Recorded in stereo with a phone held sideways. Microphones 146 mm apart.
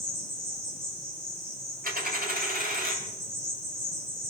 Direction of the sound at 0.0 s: 35° right (ahead or behind).